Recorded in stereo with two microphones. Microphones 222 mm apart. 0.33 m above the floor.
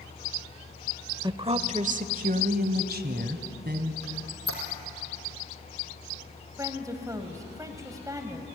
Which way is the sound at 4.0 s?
75° right (ahead or behind).